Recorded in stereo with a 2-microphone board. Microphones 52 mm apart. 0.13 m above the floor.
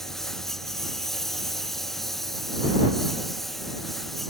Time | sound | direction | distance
0.0 | a lawn mower | 5° left (ahead or behind) | ?